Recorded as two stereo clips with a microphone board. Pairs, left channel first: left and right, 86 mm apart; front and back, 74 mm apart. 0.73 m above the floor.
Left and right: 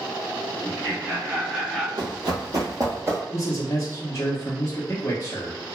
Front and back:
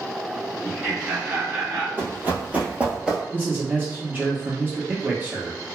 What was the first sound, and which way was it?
Laughter, 90° right.